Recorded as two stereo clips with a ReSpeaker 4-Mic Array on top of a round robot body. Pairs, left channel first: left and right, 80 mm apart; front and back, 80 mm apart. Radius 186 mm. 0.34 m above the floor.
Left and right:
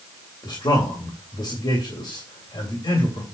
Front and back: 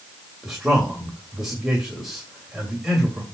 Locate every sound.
0.4 s a man speaking: 95° left, 3 m